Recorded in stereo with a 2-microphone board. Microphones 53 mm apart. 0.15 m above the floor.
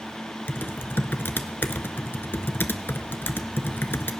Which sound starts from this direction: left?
Typing on a keyboard, at 0.5 s.